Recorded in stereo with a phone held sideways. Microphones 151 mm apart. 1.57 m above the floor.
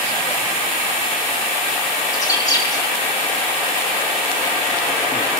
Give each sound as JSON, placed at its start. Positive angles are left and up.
{"t": 2.1, "sound": "a bird", "side_deg": 25, "distance_m": 3.5}